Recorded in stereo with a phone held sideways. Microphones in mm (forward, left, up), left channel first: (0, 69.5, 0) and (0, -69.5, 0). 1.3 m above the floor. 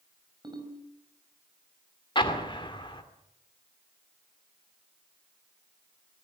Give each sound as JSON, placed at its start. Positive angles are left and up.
{"t": 0.4, "sound": "a ringtone", "side_deg": -30, "distance_m": 5.0}
{"t": 2.1, "sound": "an explosion", "side_deg": 35, "distance_m": 2.5}